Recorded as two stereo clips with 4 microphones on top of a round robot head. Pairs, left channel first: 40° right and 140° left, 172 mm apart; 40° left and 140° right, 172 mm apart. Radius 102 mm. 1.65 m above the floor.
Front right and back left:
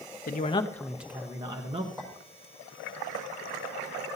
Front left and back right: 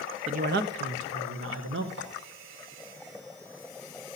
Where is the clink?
140° right, 5 m.